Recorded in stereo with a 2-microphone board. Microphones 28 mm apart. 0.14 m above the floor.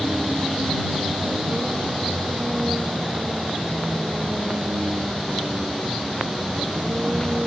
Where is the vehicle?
35° right (ahead or behind).